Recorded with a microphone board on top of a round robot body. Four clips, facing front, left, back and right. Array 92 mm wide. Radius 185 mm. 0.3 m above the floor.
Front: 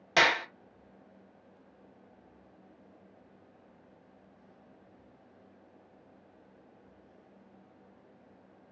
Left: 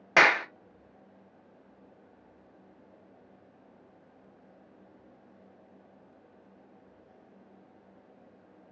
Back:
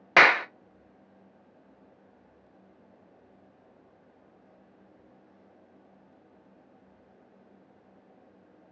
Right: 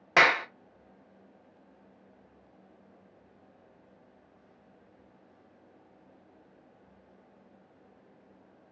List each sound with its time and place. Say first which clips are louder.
0.2 s a clap: left 1 dB, back 7 dB; 170° left, 0.8 m